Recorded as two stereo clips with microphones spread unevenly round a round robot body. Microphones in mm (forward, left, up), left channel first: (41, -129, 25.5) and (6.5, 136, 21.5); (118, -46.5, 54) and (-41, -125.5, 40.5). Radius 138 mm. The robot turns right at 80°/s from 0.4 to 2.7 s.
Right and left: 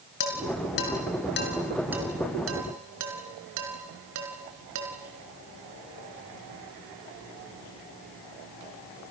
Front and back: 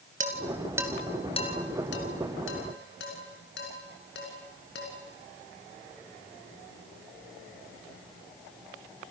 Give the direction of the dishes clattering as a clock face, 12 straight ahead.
4 o'clock.